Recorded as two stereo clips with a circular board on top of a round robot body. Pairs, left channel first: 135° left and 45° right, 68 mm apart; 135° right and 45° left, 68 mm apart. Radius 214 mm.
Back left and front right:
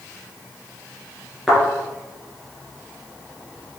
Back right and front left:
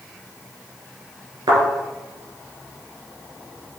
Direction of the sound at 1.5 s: 45° left.